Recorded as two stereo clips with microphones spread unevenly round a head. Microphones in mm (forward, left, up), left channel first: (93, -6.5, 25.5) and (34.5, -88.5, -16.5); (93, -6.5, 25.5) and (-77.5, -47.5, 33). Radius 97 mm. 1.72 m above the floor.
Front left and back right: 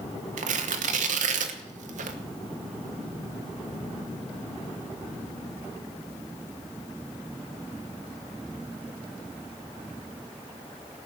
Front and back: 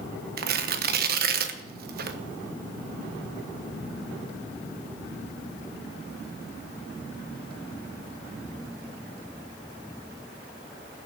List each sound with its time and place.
0.4 s tearing paper: 140° right, 1.2 m